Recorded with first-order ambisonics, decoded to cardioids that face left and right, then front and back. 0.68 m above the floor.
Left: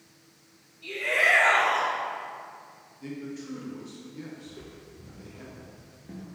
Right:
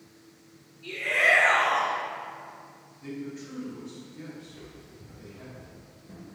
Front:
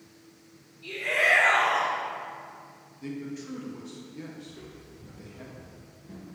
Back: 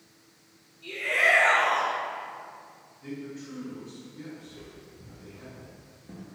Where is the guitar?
I don't hear a guitar.